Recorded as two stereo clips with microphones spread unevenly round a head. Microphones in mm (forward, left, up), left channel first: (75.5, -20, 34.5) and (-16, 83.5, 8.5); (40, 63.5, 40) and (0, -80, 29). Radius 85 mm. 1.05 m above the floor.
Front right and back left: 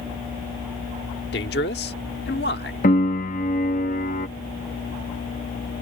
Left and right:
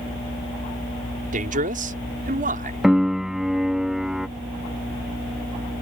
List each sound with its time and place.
1.3 s a man speaking: 75° right
2.8 s a piano: 20° right